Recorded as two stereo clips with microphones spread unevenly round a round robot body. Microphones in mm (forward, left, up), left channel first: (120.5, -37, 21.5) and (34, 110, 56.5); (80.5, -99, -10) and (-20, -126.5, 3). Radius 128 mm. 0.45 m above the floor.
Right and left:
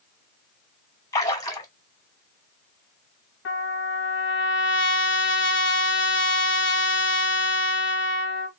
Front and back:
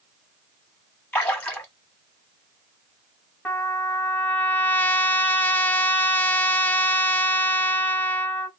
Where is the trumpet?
65° right, 0.7 m.